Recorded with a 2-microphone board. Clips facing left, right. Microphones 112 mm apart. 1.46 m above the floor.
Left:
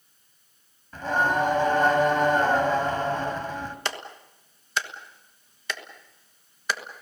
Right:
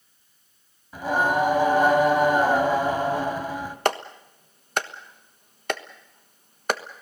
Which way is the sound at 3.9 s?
55° right (ahead or behind).